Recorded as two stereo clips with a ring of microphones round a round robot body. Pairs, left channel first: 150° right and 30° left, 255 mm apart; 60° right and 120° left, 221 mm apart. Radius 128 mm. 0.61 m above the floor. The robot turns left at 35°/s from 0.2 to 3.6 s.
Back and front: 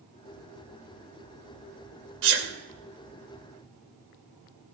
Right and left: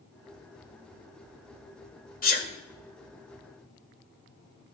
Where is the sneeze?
10° right, 2 m; by 2.5 s 20° right, 2 m.